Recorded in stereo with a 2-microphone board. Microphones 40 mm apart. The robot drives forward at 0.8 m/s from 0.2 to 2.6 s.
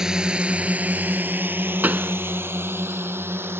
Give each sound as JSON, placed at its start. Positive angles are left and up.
{"t": 0.0, "sound": "a drone", "side_deg": -15}
{"t": 1.8, "sound": "a pop", "side_deg": -50}